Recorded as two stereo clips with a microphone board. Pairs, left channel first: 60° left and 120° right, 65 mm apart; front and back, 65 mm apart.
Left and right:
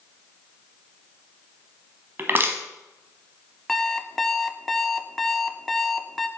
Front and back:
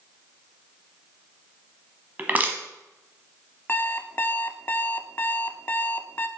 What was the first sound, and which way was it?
Crushing, 140° right.